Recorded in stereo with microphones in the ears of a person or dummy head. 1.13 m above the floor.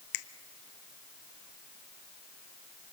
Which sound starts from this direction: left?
A finger snap, at 0.1 s.